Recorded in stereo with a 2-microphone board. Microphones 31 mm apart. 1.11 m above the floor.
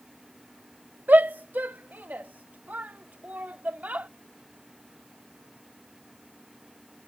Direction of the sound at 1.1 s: 70° right (ahead or behind).